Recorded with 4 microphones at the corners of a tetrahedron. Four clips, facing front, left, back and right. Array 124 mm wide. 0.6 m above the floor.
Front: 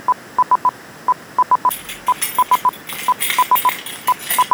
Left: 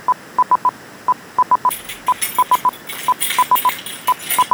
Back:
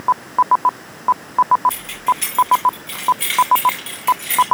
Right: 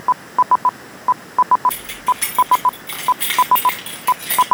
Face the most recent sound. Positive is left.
turn(degrees=-30)